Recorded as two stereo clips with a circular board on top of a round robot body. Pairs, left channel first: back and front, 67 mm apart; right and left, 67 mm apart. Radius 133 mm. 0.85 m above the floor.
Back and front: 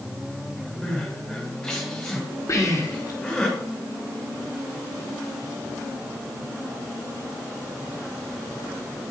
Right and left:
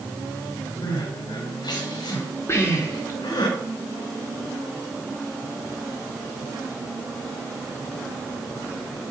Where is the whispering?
140° right, 3.5 m.